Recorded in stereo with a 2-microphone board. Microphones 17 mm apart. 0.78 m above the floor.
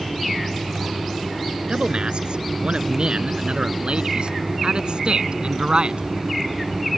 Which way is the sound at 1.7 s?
65° right (ahead or behind).